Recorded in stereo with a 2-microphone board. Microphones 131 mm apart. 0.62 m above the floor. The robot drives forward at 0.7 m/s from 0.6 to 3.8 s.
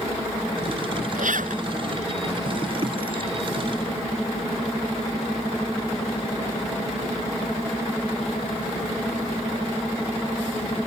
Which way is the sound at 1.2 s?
85° right.